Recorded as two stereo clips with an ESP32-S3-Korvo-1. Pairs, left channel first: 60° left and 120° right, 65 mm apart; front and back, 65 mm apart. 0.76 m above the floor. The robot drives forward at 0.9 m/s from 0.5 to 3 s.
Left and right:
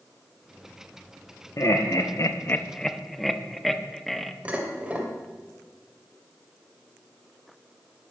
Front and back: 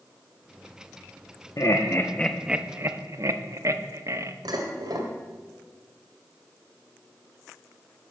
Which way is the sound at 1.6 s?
25° left.